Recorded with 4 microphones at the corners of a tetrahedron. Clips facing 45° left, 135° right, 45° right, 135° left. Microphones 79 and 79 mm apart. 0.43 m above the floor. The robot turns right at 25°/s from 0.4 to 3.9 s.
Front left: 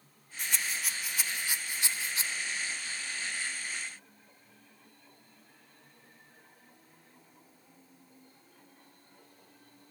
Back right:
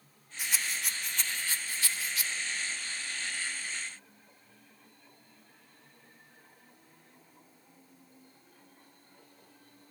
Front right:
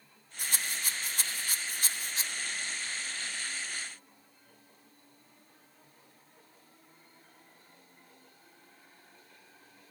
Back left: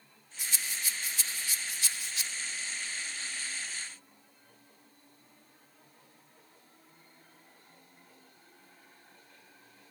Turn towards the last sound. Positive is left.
turn(degrees=35)